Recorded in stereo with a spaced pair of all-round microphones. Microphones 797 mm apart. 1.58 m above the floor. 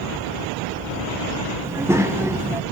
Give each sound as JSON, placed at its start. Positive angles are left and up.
{"t": 1.6, "sound": "a child speaking", "side_deg": -5, "distance_m": 0.6}